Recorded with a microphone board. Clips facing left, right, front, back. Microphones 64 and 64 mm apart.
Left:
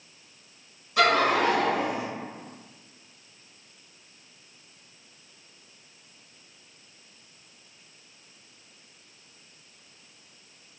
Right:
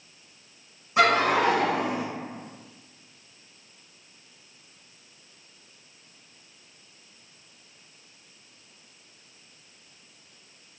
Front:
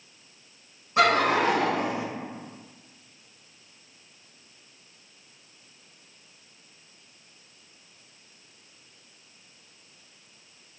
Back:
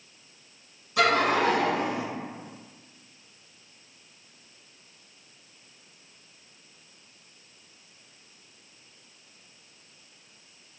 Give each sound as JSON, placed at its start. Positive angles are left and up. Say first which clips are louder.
{"t": 1.0, "sound": "laughter", "louder": "right 1 dB, front 1 dB", "azimuth_deg": -30, "distance_m": 1.9}